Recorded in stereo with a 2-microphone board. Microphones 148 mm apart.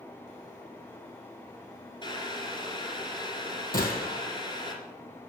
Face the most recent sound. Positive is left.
turn(degrees=75)  # may be behind; listen again after turning